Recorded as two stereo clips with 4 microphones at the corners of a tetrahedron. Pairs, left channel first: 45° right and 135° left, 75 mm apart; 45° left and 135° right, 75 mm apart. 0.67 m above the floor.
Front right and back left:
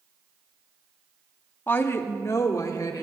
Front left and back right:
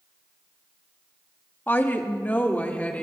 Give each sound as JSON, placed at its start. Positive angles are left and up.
{"t": 1.7, "sound": "a woman speaking", "azimuth_deg": -5, "distance_m": 1.2}